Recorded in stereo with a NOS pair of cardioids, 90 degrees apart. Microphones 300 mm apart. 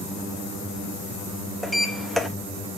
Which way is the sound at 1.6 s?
Straight ahead.